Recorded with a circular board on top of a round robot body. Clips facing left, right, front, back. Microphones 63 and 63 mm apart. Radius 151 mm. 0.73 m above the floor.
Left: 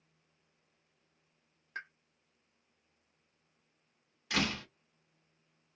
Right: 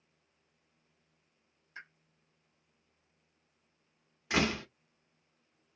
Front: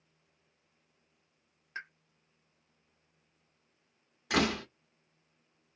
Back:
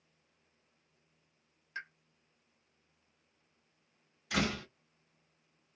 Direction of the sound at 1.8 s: 55° left.